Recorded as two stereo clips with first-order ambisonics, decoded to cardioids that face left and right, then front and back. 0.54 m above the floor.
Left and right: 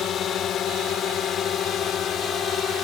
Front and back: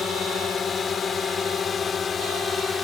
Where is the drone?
60° left; by 2.8 s 55° left.